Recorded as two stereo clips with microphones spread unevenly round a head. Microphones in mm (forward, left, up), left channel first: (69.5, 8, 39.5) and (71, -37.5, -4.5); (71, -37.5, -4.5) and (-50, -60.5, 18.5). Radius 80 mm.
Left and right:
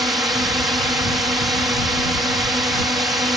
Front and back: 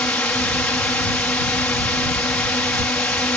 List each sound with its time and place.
0.0 s a drone: 65° right